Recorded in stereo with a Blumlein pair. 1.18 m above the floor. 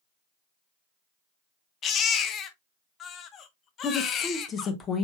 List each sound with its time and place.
1.8 s a baby crying: 30° left, 0.7 m
3.8 s a woman speaking: 25° left, 1.1 m